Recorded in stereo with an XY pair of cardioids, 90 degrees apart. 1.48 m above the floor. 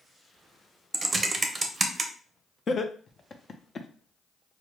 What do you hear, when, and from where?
0.9 s typing on a keyboard: 35° right, 0.6 m
2.7 s laughter: 45° left, 0.5 m